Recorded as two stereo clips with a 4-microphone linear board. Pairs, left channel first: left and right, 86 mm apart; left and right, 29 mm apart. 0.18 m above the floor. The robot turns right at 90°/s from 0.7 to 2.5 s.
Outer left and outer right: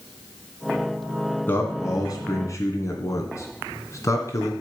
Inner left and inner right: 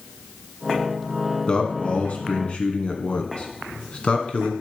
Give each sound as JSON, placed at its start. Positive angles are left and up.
{"t": 1.5, "sound": "a man speaking", "side_deg": 20, "distance_m": 2.0}